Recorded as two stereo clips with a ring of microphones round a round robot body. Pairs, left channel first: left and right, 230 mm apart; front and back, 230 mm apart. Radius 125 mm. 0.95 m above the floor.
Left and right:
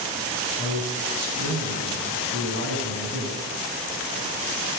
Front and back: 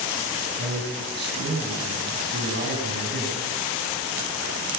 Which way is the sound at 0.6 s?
135° right.